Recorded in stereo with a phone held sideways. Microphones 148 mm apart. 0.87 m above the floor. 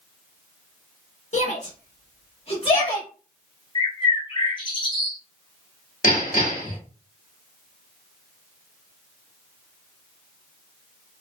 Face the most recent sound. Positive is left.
turn(degrees=65)  # may be behind; listen again after turning